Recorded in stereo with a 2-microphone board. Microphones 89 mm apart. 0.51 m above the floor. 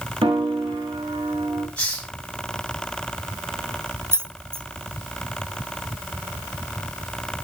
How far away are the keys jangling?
About 0.8 m.